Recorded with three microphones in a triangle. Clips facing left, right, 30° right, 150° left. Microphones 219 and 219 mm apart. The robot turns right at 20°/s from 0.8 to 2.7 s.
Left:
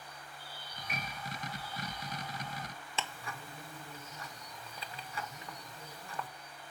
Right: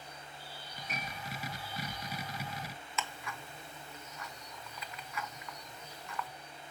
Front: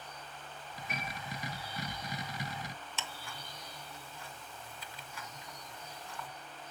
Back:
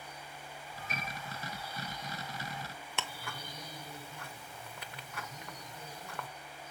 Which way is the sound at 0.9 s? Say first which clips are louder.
Even, front 1 dB; 50° right.